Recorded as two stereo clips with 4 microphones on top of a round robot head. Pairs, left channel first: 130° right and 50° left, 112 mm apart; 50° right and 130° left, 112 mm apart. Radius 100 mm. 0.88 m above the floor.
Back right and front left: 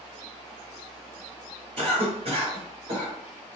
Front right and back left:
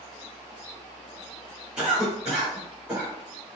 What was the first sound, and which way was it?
A cough, 50° left.